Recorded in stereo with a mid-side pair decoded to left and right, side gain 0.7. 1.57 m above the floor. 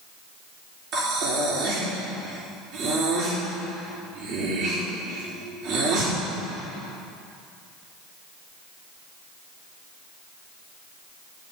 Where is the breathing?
55° right, 4.5 m.